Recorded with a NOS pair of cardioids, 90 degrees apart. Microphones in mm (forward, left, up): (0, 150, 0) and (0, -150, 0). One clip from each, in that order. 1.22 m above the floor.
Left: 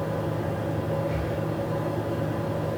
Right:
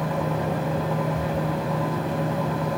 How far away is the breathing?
About 1.0 m.